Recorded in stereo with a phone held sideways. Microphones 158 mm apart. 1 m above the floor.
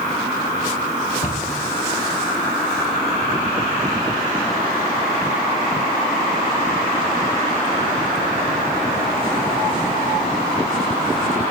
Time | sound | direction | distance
1.2 | a cupboard door | 50° left (ahead or behind) | 2.5 m